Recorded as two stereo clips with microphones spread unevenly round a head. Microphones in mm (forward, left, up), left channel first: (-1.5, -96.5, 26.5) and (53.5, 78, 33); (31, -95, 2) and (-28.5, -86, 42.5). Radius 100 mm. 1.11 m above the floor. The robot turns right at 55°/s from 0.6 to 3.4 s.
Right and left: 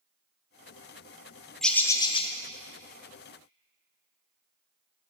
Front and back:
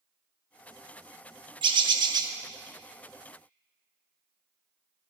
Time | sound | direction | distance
1.6 | a bird | 165° left | 0.9 m